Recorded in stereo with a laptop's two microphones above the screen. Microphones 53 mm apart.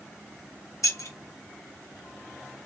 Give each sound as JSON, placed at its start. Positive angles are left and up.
{"t": 0.8, "sound": "keys jangling", "side_deg": 75, "distance_m": 1.1}